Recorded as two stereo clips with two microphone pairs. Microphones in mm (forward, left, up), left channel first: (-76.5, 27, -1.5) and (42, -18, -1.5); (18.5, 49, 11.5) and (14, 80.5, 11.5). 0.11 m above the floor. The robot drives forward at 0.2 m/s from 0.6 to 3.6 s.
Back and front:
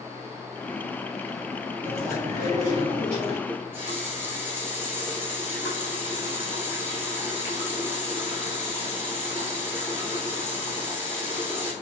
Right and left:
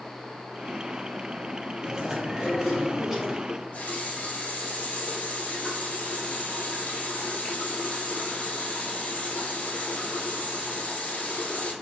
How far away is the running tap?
About 1.4 m.